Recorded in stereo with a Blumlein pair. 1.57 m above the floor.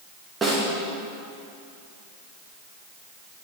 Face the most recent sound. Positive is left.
turn(degrees=-15)